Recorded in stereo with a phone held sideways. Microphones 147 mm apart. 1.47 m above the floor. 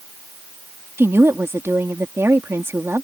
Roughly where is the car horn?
I don't hear a car horn.